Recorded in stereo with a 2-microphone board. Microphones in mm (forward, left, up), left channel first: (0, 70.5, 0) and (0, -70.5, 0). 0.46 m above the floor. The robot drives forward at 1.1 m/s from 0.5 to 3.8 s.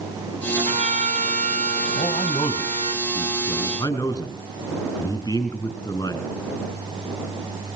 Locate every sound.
0.6 s a trumpet: 55° right (ahead or behind), 2.5 m; by 2.9 s 50° right (ahead or behind), 2.5 m
1.9 s a man speaking: 45° left (ahead or behind), 2.5 m; by 6.3 s 25° left (ahead or behind), 4 m